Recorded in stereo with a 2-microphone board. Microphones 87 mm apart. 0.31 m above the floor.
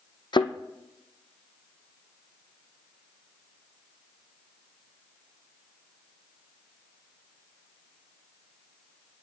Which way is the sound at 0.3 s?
60° left (ahead or behind).